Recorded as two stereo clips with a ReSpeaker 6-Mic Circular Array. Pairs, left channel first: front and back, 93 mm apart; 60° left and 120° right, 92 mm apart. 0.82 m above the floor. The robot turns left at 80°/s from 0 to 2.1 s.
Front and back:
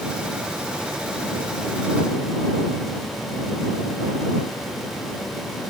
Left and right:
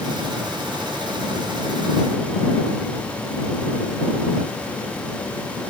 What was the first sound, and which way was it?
Only background noise.